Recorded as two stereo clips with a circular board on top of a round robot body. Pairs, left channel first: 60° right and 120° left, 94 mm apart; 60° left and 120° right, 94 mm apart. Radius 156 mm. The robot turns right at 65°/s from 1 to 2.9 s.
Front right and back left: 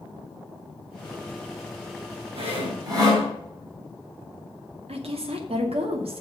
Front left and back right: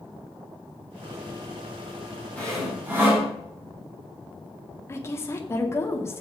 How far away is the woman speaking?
About 2 m.